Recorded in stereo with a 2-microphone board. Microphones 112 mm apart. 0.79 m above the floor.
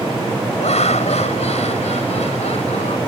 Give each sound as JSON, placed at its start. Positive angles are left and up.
{"t": 0.6, "sound": "laughter", "side_deg": 80}